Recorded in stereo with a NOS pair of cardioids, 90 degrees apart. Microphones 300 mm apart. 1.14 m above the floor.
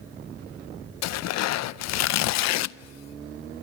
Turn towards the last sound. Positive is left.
turn(degrees=65)